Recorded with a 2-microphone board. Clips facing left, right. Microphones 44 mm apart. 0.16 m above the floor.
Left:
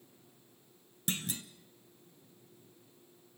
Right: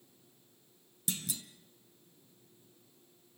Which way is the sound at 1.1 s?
45° left (ahead or behind).